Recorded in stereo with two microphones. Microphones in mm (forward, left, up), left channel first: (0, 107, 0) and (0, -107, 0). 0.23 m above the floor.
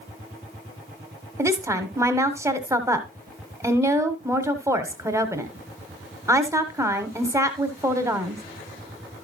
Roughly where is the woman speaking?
Centre.